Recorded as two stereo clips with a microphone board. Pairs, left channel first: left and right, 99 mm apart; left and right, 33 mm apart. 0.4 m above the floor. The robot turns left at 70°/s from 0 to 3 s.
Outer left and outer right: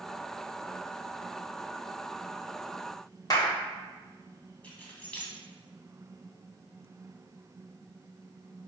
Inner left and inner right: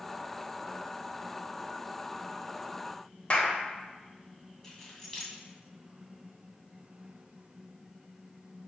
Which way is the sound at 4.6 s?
15° left (ahead or behind).